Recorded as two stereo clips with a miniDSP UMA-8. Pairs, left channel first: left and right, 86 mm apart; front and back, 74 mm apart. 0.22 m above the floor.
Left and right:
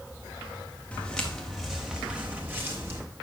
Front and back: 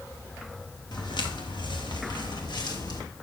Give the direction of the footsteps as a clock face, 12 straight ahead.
12 o'clock.